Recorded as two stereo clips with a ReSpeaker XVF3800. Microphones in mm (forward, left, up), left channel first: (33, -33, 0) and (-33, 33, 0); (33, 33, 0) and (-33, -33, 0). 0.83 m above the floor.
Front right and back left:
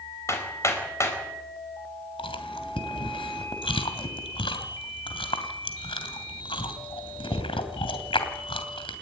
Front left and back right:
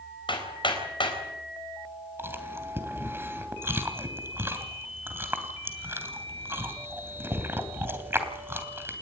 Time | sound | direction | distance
0.3 | hammering | 15° left | 4.5 m
2.2 | chewing | 70° right | 2.5 m